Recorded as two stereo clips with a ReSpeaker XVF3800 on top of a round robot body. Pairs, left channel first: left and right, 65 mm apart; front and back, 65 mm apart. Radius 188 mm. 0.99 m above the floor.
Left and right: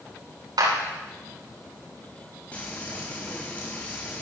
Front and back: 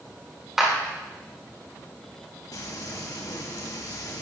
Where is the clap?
95° right, 9.5 m.